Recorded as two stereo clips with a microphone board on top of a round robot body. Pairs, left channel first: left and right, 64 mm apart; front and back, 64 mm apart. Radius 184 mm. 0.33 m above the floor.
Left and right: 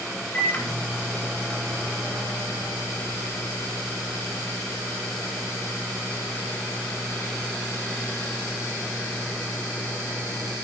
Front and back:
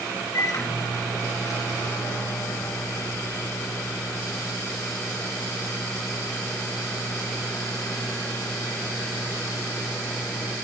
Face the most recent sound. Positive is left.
turn(degrees=25)